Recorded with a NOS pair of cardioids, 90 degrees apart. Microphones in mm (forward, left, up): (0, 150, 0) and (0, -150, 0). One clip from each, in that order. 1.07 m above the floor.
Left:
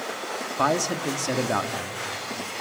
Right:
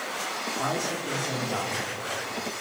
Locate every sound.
0.6 s a man speaking: 65° left, 2.5 m